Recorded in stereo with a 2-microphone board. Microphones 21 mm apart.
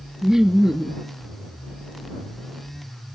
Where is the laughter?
25° right (ahead or behind).